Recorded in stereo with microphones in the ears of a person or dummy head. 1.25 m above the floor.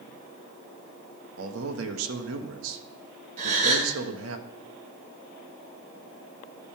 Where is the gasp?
45° right (ahead or behind), 3 m.